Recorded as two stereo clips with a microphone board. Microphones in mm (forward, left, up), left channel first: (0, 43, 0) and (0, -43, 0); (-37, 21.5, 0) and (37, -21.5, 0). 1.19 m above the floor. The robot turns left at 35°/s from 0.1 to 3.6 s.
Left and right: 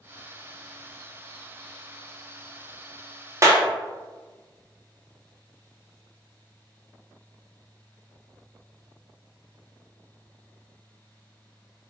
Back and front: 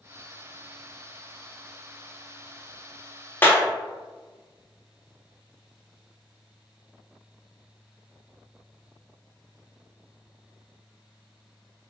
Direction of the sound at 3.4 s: 145° right.